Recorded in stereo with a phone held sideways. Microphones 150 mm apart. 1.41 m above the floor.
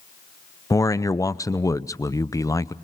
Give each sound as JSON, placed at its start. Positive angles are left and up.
{"t": 0.7, "sound": "a man speaking", "side_deg": 20, "distance_m": 0.7}